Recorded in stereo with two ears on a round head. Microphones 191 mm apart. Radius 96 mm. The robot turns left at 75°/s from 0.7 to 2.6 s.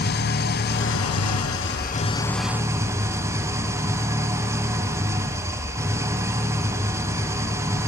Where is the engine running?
130° left, 1.6 m; by 7.9 s 15° right, 1.6 m.